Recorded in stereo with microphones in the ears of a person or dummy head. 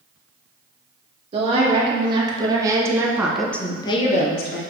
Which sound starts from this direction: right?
A woman speaking, at 1.3 s.